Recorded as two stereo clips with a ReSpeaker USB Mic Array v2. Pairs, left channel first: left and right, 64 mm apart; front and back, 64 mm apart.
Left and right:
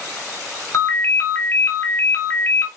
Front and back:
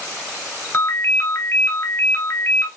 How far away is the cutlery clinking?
I don't hear cutlery clinking.